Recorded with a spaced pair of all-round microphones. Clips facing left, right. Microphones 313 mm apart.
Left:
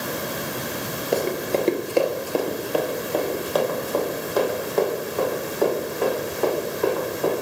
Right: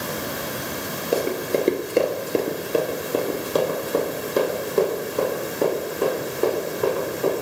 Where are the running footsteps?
5° right (ahead or behind), 1.0 m; by 7.3 s 25° right (ahead or behind), 5 m.